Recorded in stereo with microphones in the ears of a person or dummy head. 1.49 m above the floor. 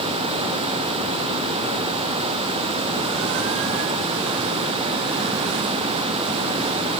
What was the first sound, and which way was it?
Only background noise.